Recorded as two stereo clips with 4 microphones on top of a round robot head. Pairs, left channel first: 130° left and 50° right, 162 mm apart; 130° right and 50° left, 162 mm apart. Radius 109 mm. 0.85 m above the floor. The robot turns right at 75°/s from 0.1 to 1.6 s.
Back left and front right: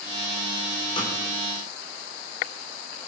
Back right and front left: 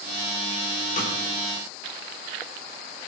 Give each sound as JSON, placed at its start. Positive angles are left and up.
{"t": 1.0, "sound": "a snare drum", "azimuth_deg": -170, "distance_m": 4.0}